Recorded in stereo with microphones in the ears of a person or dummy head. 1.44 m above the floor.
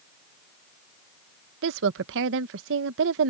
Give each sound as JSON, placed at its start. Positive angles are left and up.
{"t": 1.6, "sound": "a woman speaking", "side_deg": -70}